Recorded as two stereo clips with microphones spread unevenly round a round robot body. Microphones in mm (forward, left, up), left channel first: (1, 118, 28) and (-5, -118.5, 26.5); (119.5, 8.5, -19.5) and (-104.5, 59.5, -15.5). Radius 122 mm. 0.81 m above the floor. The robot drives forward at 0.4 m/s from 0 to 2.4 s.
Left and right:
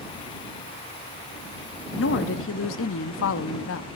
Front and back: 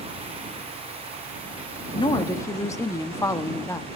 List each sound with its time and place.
1.9 s a woman speaking: 55° left, 1.0 m; by 3.9 s 65° left, 0.9 m